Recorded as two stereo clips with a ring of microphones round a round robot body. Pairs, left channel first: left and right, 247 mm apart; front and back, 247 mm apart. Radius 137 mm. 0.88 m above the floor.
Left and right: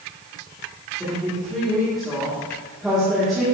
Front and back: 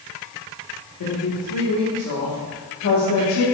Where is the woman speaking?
Straight ahead, 1.8 m.